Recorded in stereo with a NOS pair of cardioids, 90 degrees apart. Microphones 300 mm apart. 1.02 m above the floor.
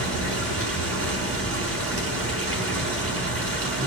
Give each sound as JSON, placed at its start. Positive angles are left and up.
{"t": 0.0, "sound": "running water", "azimuth_deg": -55, "distance_m": 6.5}